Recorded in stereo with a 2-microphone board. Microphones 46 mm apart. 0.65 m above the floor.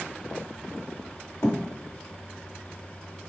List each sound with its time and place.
1.4 s a thud: 75° left (ahead or behind), 0.7 m